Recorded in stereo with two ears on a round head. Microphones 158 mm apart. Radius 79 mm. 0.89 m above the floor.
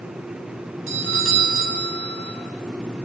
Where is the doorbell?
85° right, 8.5 m.